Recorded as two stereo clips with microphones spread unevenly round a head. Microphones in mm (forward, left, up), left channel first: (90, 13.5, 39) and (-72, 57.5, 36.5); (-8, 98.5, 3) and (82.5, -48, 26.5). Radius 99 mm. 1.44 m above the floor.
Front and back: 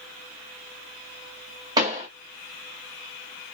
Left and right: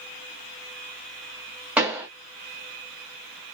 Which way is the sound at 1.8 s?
130° right.